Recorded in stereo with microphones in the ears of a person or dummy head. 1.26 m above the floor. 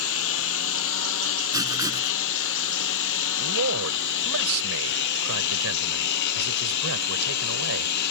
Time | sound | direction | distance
0.0 | a lawn mower | 75° left (ahead or behind) | ?
1.5 | writing | 20° right (ahead or behind) | ?
3.4 | a man speaking | 85° right | ?